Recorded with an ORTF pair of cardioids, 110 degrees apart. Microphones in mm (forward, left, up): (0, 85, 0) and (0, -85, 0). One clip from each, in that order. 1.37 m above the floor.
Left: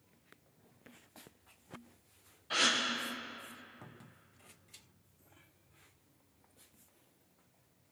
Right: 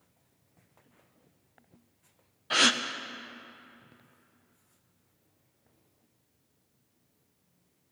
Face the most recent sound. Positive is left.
turn(degrees=-40)